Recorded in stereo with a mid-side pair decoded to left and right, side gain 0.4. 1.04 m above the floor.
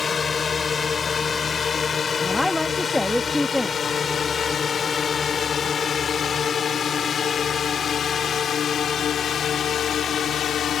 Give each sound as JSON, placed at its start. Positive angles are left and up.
{"t": 0.0, "sound": "a drone", "azimuth_deg": 45}
{"t": 2.2, "sound": "a woman speaking", "azimuth_deg": 15}